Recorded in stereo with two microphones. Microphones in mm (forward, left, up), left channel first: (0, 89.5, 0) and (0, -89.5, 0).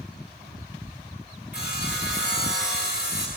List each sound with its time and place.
1.5 s sawing: 65° left (ahead or behind), 9.5 m